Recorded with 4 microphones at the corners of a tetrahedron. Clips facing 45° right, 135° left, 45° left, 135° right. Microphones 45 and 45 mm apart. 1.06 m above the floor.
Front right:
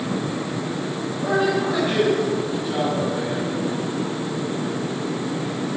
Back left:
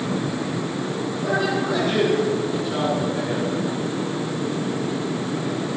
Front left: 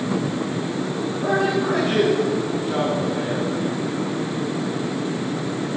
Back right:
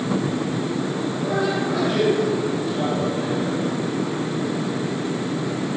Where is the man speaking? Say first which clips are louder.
Front right 3 dB, front left 3 dB; 20° left, 7 m; by 3.5 s 30° left, 4.5 m.